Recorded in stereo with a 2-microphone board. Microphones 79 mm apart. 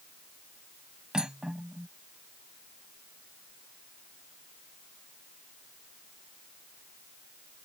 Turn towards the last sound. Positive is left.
turn(degrees=-10)  # may be behind; listen again after turning